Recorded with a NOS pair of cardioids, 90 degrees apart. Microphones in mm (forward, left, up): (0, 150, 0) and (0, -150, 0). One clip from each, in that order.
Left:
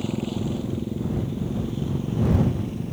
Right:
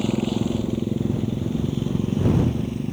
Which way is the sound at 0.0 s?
40° right.